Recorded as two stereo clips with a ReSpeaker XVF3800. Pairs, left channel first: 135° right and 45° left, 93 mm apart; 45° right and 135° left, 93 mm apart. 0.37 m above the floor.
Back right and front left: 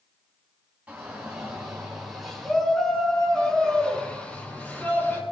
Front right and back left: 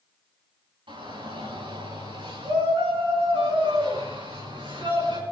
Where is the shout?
120° left, 9.5 m; by 5.2 s 160° left, 8.5 m.